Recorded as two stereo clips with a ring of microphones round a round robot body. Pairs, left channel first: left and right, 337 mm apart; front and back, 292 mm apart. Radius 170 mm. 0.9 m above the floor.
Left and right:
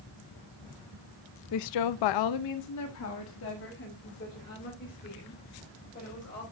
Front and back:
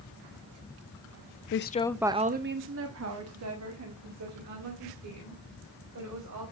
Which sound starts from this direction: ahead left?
A woman speaking, at 1.5 s.